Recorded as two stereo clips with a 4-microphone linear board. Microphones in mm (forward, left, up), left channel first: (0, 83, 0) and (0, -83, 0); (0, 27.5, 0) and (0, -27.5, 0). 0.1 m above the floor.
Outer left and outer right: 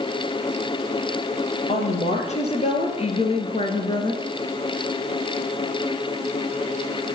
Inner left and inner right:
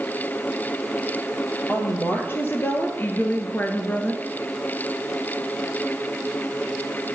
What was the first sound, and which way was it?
A woman speaking, 40° left (ahead or behind).